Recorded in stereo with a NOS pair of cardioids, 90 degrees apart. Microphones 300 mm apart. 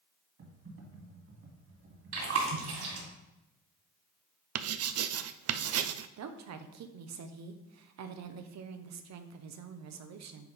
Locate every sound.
0.4 s typing on a keyboard: 45° right, 2.5 m
2.1 s chewing: 60° right, 3.5 m
4.5 s writing: 55° right, 0.6 m
6.2 s a woman speaking: 60° right, 1.0 m